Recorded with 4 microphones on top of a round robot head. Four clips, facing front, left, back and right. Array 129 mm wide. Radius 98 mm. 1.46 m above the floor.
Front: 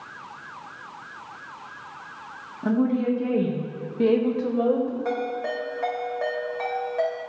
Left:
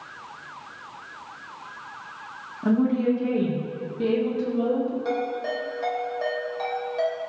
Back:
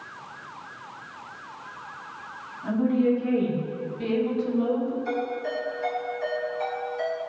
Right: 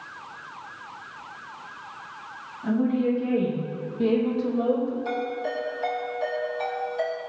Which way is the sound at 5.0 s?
20° left.